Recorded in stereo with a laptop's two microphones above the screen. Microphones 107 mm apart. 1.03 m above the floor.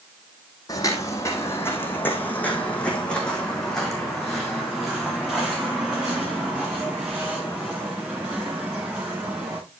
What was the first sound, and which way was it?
Footsteps, 35° left (ahead or behind).